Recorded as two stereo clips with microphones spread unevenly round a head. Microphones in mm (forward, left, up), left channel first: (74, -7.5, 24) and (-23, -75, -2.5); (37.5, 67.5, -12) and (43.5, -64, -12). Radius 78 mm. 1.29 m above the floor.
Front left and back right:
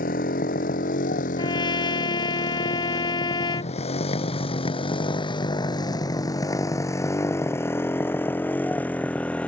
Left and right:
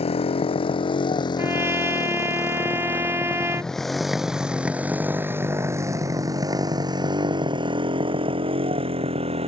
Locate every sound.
0.0 s a motorcycle: 50° left; by 9.5 s 45° right
1.4 s a trumpet: 15° right